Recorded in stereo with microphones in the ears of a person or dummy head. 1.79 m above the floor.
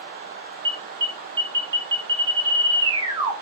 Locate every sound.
0.7 s an alarm: 25° right (ahead or behind), 1.4 m